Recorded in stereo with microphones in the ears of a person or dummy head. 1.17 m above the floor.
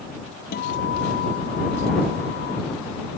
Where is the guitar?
50° left (ahead or behind).